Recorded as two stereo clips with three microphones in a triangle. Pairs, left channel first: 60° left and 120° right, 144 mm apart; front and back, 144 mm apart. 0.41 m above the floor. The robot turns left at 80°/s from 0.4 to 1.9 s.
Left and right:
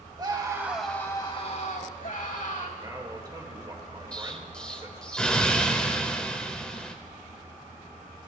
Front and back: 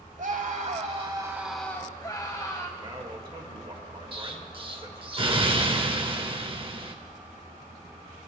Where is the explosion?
140° left, 0.8 m.